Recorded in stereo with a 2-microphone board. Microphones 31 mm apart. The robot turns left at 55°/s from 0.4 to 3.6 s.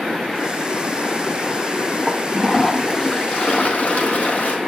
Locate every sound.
2.1 s a toilet flushing: 145° right, 2 m; by 4.6 s 130° left, 2 m